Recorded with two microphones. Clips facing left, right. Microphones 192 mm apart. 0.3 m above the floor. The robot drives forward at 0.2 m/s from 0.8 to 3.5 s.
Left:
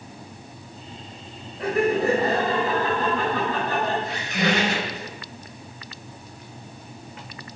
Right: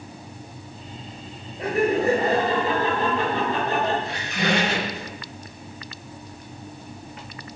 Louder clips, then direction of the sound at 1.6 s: Even; 25° right (ahead or behind).